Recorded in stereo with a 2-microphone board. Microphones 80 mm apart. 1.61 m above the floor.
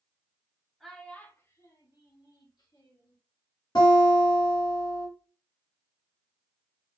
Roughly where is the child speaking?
Centre.